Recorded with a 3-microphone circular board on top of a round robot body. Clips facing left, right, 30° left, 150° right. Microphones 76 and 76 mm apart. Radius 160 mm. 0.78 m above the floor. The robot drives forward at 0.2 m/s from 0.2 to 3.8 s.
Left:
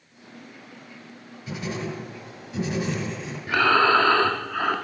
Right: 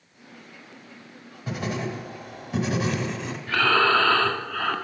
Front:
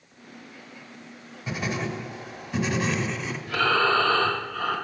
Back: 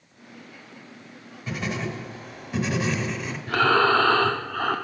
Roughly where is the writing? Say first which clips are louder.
Right 2 dB, even; ahead right.